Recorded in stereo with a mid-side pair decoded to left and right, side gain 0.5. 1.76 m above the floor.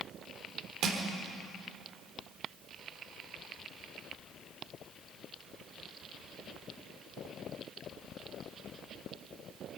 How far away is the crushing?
About 3.5 m.